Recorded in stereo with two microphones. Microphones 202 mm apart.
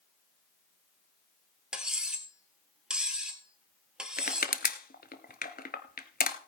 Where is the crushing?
50° left (ahead or behind), 0.7 m.